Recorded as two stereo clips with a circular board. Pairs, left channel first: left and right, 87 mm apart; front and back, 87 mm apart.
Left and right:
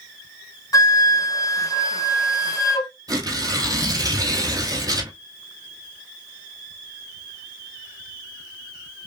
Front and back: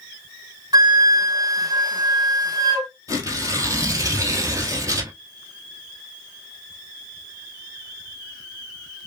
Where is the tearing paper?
130° right, 1.2 m.